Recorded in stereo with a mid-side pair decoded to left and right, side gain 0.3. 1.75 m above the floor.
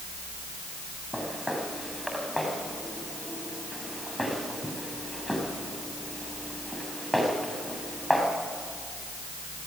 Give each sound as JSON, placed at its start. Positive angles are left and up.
{"t": 1.1, "sound": "footsteps", "azimuth_deg": 0, "distance_m": 8.0}